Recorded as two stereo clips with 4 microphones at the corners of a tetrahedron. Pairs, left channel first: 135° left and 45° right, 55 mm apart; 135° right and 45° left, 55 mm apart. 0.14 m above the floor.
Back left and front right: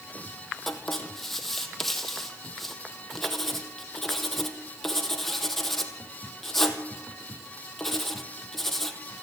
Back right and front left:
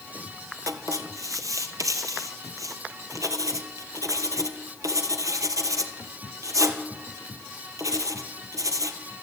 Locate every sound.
0.7 s writing: 50° left, 2 m